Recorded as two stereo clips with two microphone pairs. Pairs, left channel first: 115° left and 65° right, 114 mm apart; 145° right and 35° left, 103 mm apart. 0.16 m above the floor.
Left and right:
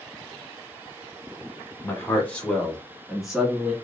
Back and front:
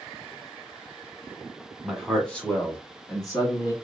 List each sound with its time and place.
1.8 s a man speaking: 110° left, 1.2 m; by 3.7 s 145° right, 1.5 m